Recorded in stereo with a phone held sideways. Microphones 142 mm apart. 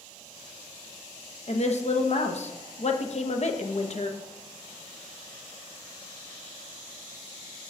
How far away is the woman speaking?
About 0.7 m.